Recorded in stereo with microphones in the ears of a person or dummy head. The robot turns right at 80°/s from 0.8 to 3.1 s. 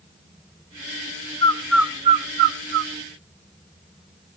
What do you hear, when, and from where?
1.4 s a bird: 20° left (ahead or behind), 0.7 m; by 2.9 s 70° right (ahead or behind), 0.7 m